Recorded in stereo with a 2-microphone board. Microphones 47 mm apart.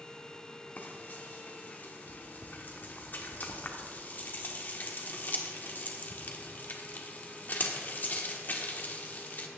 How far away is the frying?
About 1.3 m.